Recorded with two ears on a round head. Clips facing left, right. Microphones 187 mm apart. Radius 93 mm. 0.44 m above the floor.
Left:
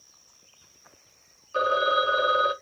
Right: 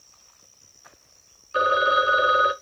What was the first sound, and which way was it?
A phone ringing, 20° right (ahead or behind).